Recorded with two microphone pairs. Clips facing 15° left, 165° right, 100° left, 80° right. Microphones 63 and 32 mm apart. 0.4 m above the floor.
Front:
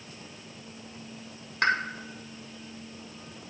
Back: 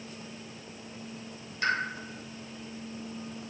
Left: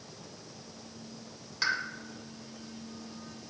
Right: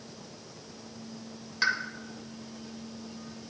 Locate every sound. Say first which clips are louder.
1.6 s a pop: front 4 dB, right 3 dB; straight ahead, 0.9 m